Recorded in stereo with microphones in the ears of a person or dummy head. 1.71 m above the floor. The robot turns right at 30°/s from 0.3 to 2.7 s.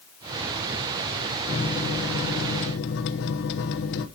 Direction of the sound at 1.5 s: 50° left.